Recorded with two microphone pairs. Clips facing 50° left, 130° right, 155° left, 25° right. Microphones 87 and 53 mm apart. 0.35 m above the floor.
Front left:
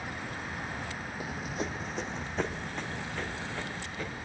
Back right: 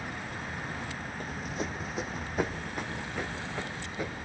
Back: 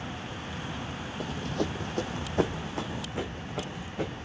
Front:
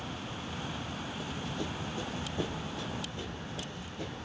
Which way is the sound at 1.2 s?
130° left.